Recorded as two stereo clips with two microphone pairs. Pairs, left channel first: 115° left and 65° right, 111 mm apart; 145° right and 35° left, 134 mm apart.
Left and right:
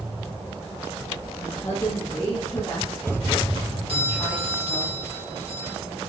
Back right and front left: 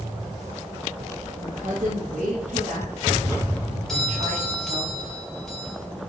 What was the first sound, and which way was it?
A woman speaking, 45° left.